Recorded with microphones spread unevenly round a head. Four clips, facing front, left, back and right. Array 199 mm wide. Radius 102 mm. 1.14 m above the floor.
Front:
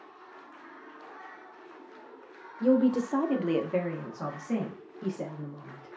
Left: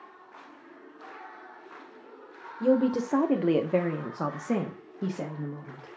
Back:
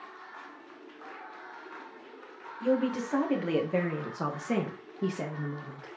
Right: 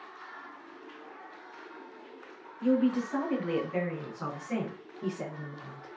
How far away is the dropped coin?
I don't hear a dropped coin.